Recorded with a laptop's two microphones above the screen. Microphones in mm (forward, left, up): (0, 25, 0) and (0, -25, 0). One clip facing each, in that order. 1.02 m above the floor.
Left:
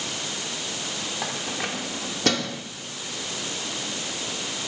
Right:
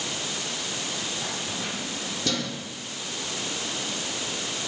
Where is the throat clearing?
I don't hear throat clearing.